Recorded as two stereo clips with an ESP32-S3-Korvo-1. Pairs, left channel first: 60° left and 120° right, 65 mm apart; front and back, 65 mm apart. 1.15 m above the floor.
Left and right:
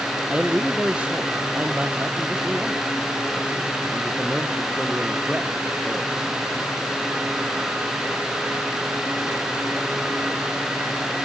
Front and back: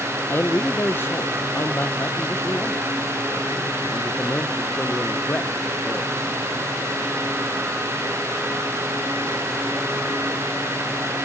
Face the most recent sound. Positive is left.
turn(degrees=-55)